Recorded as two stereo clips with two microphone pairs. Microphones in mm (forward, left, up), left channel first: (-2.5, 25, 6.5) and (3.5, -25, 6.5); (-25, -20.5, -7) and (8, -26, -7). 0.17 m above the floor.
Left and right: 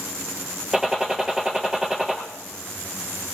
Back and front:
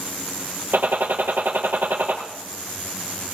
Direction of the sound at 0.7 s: 5° right.